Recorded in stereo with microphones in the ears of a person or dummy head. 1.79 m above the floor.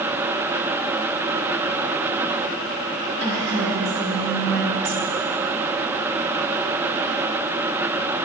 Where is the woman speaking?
60° right (ahead or behind), 2 m.